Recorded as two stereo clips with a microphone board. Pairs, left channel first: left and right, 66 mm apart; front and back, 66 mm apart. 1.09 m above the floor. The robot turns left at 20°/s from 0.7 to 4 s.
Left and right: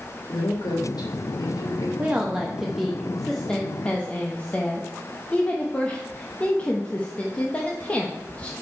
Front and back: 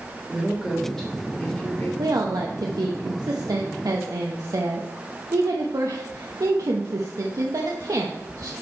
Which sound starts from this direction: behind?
A woman speaking, at 2.0 s.